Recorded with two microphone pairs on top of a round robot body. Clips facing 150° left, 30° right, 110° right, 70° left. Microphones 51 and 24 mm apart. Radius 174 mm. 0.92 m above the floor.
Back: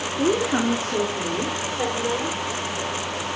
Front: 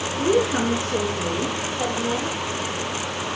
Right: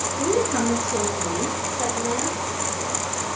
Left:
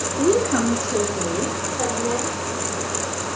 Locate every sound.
0.2 s a woman speaking: 105° left, 2.5 m; by 2.4 s 115° left, 5 m